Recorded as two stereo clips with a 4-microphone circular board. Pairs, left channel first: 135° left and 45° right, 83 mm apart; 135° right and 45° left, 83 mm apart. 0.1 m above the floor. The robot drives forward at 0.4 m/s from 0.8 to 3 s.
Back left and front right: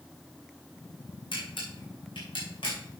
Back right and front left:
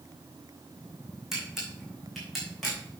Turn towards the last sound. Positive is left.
turn(degrees=140)